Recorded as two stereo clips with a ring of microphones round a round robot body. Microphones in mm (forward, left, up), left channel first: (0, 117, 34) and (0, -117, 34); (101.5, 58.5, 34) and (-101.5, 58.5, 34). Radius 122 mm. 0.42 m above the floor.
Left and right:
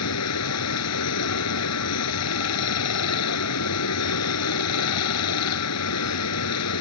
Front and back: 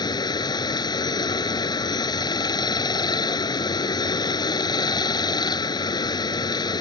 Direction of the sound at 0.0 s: 70° left.